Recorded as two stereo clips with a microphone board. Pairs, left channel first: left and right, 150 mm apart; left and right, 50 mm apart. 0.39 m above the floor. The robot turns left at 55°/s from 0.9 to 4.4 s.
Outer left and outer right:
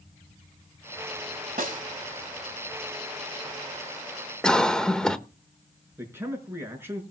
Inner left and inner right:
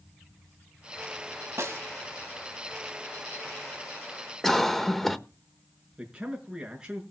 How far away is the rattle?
No rattle in this recording.